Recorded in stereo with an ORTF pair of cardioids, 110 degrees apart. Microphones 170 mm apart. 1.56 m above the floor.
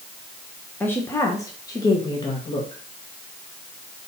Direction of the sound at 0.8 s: 10° left.